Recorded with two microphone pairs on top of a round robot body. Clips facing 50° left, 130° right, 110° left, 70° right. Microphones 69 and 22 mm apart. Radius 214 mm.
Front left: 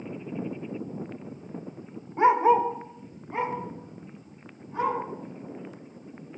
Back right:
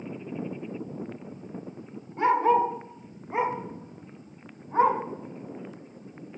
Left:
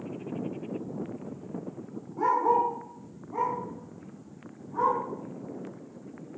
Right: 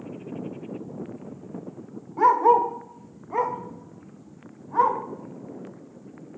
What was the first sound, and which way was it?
A dog barking, 20° right.